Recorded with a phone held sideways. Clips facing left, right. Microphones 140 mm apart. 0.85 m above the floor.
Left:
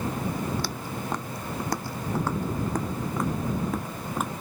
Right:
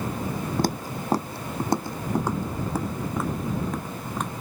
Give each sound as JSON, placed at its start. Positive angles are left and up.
{"t": 0.6, "sound": "footsteps", "side_deg": -45}